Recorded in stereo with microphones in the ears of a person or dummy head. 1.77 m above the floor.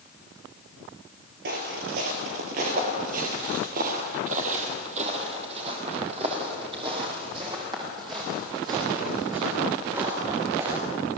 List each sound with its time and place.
1.4 s footsteps: 45° right (ahead or behind), 2.5 m; by 10.8 s 20° right (ahead or behind), 8 m